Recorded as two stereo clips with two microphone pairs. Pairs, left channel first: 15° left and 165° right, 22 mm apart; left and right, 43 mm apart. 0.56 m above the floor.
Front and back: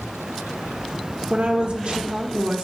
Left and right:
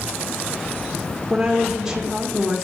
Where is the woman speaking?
165° right, 1.1 m.